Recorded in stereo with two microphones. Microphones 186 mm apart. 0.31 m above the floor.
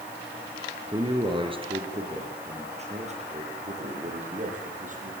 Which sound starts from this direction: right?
A man speaking, at 0.9 s.